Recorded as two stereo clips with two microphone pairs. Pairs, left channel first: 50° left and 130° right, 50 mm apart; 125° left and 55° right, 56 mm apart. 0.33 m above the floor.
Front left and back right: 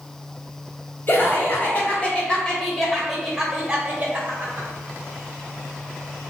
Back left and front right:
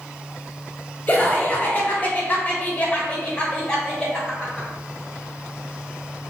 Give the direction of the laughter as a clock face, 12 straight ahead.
9 o'clock.